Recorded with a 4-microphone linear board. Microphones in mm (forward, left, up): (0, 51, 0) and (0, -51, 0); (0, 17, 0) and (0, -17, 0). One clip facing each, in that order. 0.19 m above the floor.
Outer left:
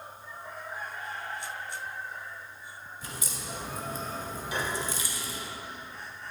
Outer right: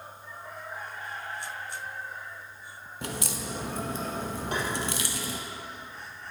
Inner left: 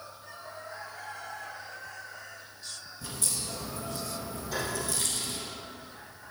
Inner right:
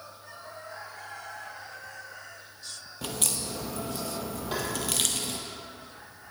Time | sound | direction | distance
3.0 | a crack | 80° right | 0.9 m
4.5 | tapping | 55° right (ahead or behind) | 3.5 m